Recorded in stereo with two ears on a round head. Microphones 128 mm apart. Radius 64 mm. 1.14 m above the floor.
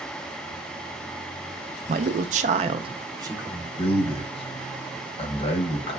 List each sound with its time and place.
1.9 s a man speaking: 55° right (ahead or behind), 0.5 m; by 3.7 s 20° right (ahead or behind), 0.9 m
3.8 s a man speaking: 40° left (ahead or behind), 0.8 m